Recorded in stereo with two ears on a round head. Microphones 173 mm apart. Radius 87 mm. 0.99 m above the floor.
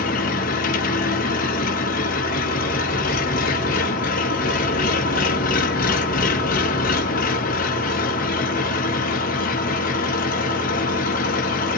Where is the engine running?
45° left (ahead or behind), 0.8 m.